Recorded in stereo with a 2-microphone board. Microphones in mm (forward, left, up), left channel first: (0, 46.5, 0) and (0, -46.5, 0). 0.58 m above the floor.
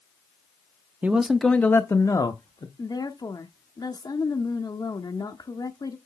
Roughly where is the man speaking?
Centre.